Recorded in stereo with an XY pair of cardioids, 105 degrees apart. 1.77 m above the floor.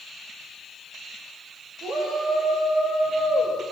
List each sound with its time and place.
1.8 s a shout: 65° right, 5 m